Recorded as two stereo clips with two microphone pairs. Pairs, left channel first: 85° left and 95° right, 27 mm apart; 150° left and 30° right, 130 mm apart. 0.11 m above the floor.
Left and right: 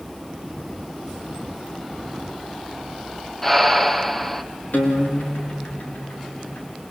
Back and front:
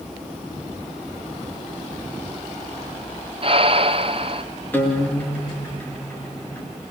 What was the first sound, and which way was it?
Breathing, 5° left.